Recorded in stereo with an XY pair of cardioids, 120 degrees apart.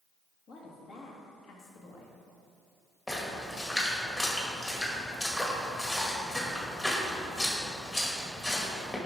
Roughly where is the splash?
Ahead.